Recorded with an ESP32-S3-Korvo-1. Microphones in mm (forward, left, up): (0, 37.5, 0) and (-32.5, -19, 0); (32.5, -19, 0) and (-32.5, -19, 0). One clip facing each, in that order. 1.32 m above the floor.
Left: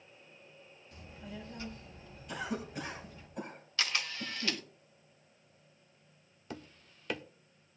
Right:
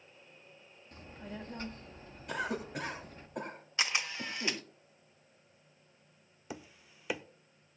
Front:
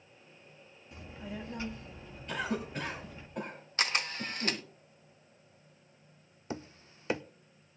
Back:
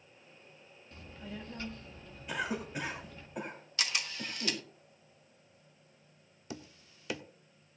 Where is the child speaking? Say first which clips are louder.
Right 2 dB, front 3 dB; 75° right, 1.7 m.